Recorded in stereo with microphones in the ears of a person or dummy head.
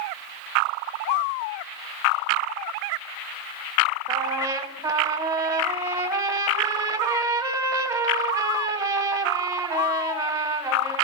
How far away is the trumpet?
About 1.5 m.